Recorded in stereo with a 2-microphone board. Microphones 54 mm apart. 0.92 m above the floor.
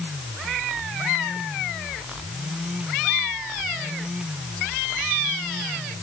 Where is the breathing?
No breathing in this recording.